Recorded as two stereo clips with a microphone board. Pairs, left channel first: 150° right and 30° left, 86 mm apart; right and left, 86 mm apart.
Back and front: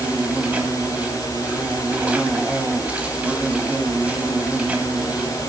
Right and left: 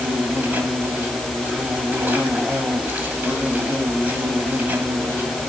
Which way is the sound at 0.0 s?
75° left.